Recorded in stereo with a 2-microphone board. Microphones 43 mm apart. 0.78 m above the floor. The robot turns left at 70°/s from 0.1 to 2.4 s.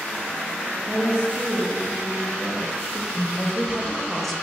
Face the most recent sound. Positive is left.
turn(degrees=5)  # may be behind; listen again after turning